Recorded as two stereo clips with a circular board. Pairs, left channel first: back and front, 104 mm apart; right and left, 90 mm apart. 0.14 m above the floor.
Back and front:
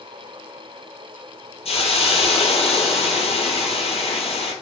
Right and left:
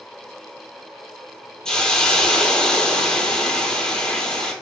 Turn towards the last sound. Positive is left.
turn(degrees=-170)